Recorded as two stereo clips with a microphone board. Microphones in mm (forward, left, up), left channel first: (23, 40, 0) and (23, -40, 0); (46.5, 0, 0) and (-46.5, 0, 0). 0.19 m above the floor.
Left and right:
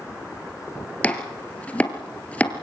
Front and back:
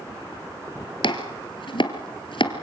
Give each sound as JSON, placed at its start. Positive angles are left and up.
{"t": 1.0, "sound": "chopping", "azimuth_deg": 15, "distance_m": 1.7}